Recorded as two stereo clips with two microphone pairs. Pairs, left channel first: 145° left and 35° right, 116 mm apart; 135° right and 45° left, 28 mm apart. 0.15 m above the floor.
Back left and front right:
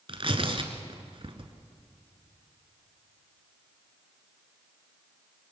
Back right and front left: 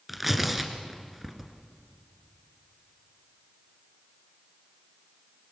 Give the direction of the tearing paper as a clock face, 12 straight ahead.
1 o'clock.